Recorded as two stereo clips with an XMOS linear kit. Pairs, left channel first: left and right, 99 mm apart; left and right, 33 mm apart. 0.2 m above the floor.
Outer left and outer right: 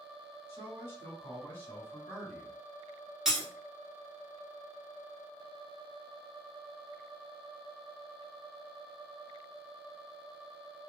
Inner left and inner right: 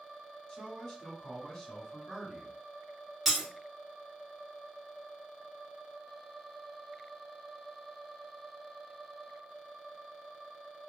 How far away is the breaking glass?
About 1.4 m.